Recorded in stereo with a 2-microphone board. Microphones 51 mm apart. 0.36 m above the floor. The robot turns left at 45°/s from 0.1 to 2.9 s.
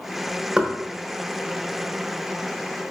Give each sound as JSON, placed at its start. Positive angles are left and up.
{"t": 0.6, "sound": "knocking", "side_deg": -20, "distance_m": 0.6}